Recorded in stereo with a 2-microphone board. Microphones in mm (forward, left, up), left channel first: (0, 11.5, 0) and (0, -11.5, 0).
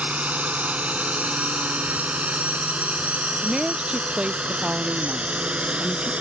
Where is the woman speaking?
40° right (ahead or behind).